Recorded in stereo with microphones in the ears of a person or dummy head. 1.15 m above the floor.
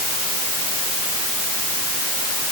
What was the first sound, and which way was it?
Only background noise.